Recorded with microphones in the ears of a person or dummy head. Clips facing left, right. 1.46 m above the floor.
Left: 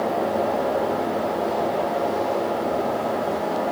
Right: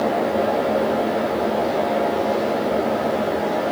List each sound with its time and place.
Only background noise.